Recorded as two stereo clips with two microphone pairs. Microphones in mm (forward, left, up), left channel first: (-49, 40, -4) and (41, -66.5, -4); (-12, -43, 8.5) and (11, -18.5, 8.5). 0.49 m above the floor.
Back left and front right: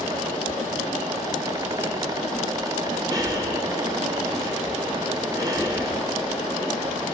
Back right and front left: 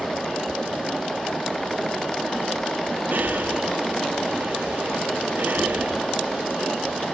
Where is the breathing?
15° left, 5 m.